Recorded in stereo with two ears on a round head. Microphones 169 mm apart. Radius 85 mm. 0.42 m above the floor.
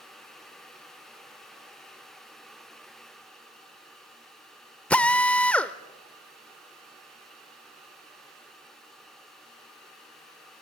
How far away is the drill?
About 0.6 m.